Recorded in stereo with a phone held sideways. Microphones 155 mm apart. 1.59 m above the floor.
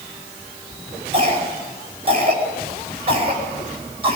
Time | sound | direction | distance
1.1 | a cough | 35° right (ahead or behind) | 9.5 m